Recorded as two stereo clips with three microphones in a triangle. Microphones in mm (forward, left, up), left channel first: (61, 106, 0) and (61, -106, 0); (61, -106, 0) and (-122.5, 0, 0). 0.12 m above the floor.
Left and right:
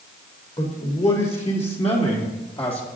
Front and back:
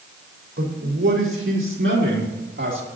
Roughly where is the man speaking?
Behind left.